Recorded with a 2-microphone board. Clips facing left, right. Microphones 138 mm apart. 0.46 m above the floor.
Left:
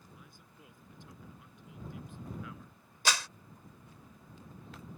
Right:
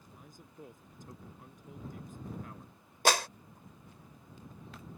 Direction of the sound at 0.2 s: 40° right (ahead or behind).